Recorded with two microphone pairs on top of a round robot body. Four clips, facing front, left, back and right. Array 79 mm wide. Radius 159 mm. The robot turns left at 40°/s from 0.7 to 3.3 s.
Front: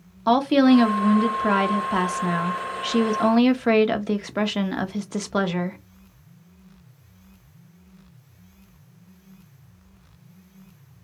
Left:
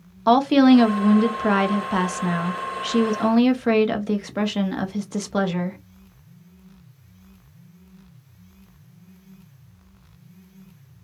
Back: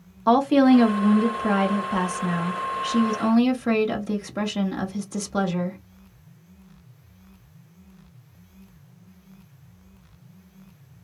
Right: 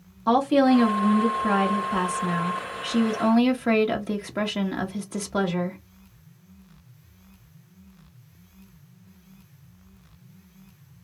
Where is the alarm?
I don't hear an alarm.